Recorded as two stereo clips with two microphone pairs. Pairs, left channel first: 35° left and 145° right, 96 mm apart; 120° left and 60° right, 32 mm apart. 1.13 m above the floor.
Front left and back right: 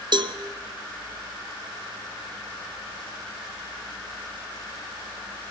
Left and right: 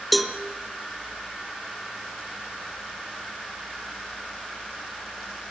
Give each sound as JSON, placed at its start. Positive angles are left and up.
{"t": 0.1, "sound": "a cowbell", "azimuth_deg": -150, "distance_m": 1.0}